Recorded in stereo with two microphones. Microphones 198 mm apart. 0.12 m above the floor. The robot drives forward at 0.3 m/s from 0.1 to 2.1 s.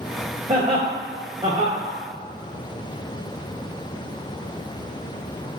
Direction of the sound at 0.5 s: 25° right (ahead or behind).